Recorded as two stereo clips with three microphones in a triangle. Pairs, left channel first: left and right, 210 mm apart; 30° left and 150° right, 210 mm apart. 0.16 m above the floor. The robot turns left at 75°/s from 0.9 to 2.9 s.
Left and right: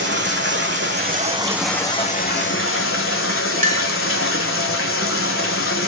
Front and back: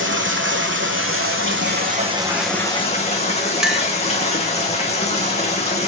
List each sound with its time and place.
0.0 s running water: 125° right, 1.6 m; by 5.9 s 85° left, 1.6 m
3.6 s a clink: 65° right, 1.0 m